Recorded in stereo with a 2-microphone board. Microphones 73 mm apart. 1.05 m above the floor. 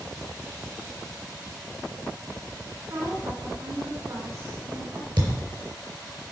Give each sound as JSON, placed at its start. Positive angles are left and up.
{"t": 2.9, "sound": "a woman speaking", "side_deg": -60, "distance_m": 4.0}
{"t": 5.2, "sound": "a thud", "side_deg": -70, "distance_m": 4.5}